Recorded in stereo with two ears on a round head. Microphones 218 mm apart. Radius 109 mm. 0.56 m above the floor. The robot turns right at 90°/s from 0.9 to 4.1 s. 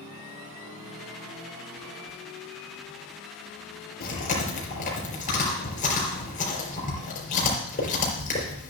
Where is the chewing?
45° left (ahead or behind), 4.5 m; by 8.7 s 35° left (ahead or behind), 4.5 m.